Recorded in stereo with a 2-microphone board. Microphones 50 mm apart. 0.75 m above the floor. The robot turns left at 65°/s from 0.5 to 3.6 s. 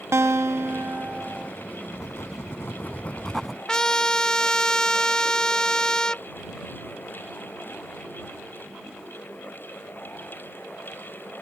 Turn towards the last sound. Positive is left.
turn(degrees=15)  # may be behind; listen again after turning